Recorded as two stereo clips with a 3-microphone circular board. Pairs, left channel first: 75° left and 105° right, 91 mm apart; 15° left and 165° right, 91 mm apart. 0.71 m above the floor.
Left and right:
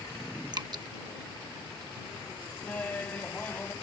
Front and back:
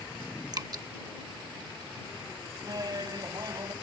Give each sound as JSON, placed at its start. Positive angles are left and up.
{"t": 0.5, "sound": "dripping", "azimuth_deg": -130}
{"t": 2.6, "sound": "laughter", "azimuth_deg": 150}